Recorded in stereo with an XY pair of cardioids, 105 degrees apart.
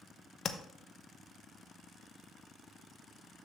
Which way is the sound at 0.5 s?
45° left.